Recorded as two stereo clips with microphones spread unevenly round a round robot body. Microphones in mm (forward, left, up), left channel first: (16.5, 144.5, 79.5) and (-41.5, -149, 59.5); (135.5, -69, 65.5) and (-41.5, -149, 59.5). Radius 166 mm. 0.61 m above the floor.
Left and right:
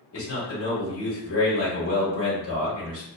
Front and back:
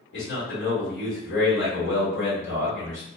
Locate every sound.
0.1 s a man speaking: 35° left, 1.9 m